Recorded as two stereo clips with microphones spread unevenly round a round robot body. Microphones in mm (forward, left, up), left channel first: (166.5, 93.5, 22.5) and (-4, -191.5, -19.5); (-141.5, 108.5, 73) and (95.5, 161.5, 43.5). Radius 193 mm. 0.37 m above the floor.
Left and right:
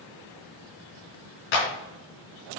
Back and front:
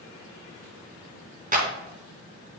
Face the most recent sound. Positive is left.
turn(degrees=70)